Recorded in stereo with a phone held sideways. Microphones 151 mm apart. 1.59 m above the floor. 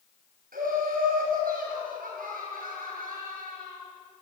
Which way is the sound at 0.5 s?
85° right.